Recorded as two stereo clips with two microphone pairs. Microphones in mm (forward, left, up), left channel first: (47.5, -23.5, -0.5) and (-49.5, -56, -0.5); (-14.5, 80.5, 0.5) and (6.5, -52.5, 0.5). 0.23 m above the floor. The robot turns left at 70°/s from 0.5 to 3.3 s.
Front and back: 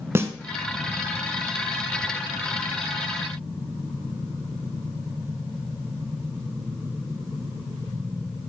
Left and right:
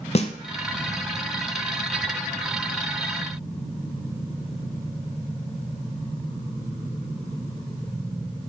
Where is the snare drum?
135° left, 0.7 m.